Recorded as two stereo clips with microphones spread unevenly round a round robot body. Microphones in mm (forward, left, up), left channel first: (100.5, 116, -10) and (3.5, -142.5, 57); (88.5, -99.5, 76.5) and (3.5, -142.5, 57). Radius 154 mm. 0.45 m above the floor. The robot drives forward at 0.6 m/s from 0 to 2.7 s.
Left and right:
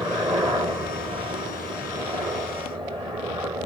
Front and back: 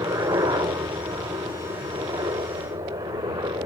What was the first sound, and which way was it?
A helicopter, 165° left.